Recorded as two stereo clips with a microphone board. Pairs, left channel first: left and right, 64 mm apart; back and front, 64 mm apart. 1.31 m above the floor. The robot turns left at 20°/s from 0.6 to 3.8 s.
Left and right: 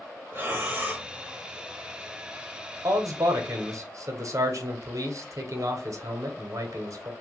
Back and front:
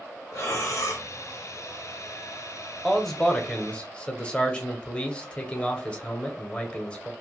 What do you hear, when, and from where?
0.3 s breathing: 145° right, 1.1 m; by 1.1 s 155° right, 1.1 m
2.8 s a man speaking: 90° right, 0.8 m; by 7.1 s 110° right, 0.8 m